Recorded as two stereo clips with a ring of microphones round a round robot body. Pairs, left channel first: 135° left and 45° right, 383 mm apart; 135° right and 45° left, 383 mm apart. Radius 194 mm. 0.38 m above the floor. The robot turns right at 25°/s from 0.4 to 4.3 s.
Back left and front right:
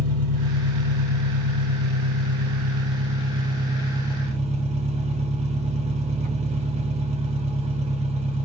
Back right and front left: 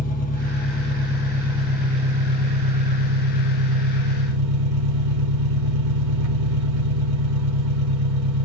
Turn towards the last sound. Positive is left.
turn(degrees=20)